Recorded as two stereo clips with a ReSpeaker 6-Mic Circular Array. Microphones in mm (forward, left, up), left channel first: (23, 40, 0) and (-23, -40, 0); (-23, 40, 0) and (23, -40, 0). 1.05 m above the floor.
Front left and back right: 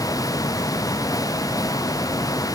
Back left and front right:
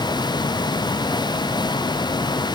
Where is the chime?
No chime in this recording.